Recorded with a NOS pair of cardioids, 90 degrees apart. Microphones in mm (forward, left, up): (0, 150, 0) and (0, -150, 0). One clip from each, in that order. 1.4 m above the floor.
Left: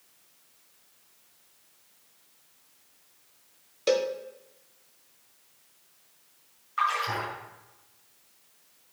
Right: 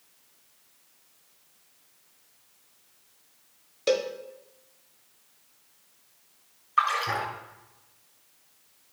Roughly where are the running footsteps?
No running footsteps in this recording.